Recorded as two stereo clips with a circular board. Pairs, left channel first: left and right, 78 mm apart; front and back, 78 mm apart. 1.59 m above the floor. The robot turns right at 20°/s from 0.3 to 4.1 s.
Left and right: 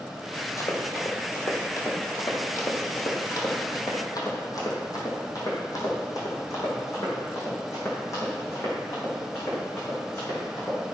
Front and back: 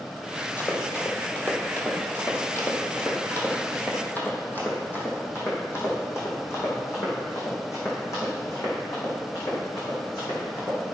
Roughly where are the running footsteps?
Ahead left.